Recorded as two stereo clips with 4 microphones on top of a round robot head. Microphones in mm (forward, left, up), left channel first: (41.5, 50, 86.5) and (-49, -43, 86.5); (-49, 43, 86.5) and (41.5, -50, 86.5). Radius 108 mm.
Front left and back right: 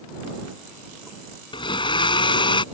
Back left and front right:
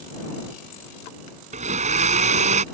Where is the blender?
10° right.